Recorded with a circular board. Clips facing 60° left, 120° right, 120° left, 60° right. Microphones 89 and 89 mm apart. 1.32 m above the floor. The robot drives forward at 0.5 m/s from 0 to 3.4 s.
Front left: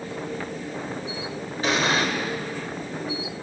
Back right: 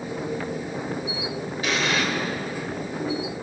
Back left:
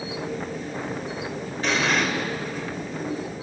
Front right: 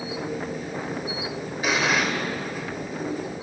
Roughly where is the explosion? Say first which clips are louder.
Front left 2 dB, even; ahead.